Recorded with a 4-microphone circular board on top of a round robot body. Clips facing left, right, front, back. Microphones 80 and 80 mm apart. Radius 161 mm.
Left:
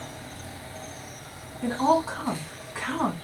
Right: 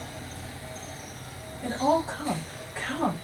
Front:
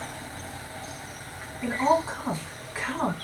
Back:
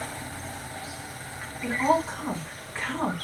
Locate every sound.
1.6 s a woman speaking: 80° left, 1.7 m